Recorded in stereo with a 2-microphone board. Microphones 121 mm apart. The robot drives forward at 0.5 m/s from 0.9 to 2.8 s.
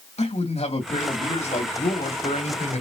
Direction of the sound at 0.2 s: 60° left (ahead or behind).